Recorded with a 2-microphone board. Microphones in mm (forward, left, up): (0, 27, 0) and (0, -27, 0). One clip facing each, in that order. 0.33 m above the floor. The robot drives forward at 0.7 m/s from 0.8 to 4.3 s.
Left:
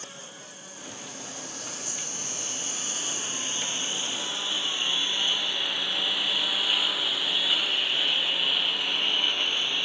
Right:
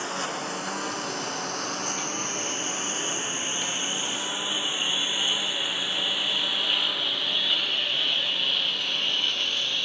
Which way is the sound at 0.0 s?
80° right.